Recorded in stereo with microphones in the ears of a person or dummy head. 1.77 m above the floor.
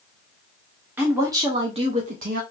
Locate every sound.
1.0 s a woman speaking: 10° right (ahead or behind), 1.3 m; by 2.4 s 50° right (ahead or behind), 1.0 m